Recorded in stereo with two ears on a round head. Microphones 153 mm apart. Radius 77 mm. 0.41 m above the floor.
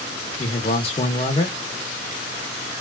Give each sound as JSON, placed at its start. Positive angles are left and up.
{"t": 0.4, "sound": "a man speaking", "side_deg": 35, "distance_m": 0.9}